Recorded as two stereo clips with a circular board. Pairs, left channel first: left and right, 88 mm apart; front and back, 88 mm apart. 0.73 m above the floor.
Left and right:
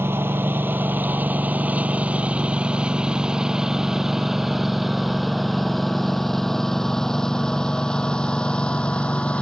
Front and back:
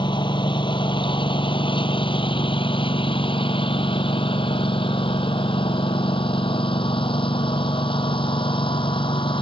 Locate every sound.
0.0 s a lawn mower: 25° right; by 9.4 s 15° left